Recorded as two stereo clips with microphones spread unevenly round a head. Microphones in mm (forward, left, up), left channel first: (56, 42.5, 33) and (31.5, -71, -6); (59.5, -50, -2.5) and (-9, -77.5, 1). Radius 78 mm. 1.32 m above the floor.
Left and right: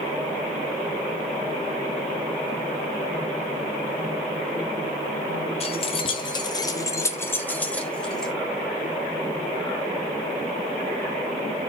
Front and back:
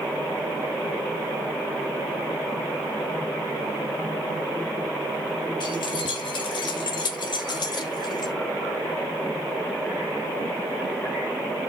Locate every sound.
5.6 s keys jangling: 60° left, 1.2 m; by 8.3 s 5° right, 1.8 m